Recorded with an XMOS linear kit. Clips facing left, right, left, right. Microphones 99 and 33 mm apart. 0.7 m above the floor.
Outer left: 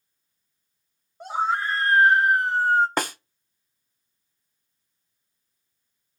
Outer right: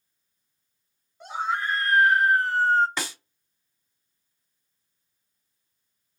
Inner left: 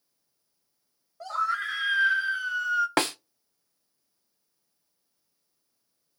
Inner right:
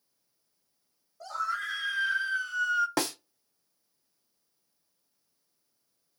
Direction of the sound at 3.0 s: 50° left (ahead or behind).